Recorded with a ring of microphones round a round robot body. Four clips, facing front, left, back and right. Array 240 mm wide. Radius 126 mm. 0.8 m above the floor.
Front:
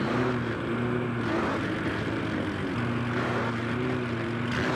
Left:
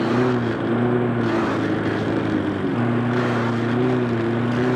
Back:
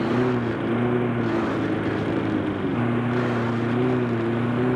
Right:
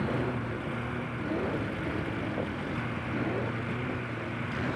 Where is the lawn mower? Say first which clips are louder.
Left 12 dB, back 5 dB; 110° left; by 4.8 s 115° left.